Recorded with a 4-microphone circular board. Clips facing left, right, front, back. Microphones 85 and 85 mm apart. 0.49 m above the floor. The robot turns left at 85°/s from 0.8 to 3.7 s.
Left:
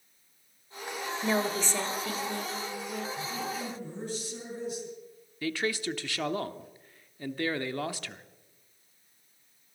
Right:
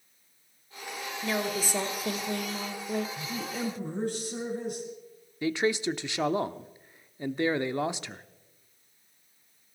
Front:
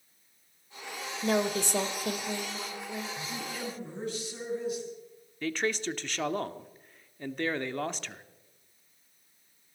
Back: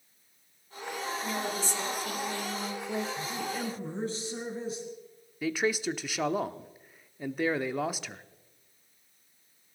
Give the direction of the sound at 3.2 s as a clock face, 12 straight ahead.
2 o'clock.